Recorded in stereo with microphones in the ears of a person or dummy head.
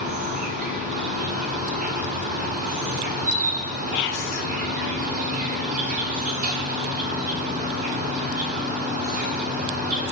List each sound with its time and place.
0.0 s an insect: 40° right (ahead or behind), 1.5 m
3.9 s whispering: 60° left (ahead or behind), 0.6 m